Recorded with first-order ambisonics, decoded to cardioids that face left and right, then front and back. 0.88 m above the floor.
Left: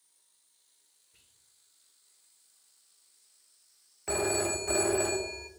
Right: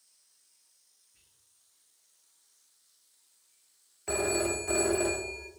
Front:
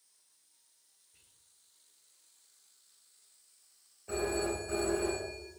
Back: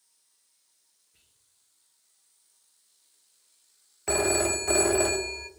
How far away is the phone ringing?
About 0.8 m.